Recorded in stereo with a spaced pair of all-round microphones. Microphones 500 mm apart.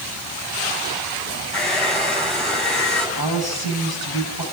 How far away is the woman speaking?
About 10 m.